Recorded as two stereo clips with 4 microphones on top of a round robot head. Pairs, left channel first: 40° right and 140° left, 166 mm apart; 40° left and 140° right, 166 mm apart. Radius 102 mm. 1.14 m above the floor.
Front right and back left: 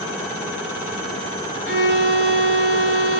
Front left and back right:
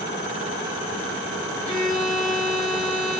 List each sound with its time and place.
1.6 s a violin: 70° right, 3 m